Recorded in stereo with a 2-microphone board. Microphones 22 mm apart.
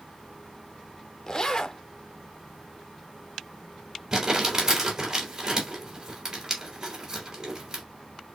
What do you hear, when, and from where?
1.3 s a zipper: 30° left (ahead or behind), 0.6 m
4.1 s crumpling: 30° right (ahead or behind), 3 m